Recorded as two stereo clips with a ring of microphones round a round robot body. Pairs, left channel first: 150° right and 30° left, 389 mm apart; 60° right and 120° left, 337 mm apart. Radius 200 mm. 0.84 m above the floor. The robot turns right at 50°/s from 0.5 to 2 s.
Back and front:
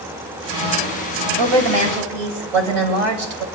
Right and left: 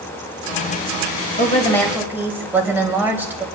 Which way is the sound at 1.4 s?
5° left.